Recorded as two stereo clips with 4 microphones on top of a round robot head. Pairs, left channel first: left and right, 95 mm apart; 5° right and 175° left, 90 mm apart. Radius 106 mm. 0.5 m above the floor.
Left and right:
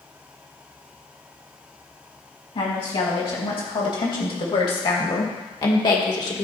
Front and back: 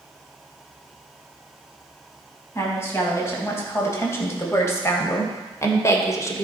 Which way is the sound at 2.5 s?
60° left.